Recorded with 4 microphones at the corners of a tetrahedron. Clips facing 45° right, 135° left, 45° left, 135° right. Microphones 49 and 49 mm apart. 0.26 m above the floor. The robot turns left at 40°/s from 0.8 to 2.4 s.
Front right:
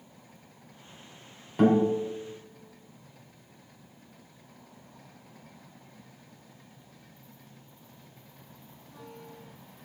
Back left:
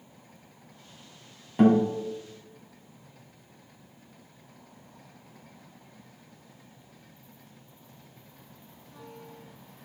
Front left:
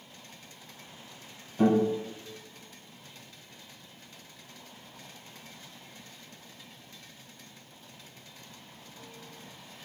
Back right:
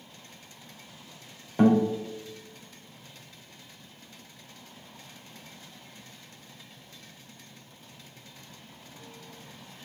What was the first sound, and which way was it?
A guitar, 145° right.